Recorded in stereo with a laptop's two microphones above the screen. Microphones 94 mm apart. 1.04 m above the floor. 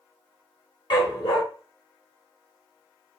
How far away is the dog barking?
About 1.2 m.